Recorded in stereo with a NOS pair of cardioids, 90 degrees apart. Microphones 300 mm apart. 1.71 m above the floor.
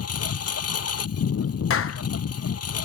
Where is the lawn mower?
50° left.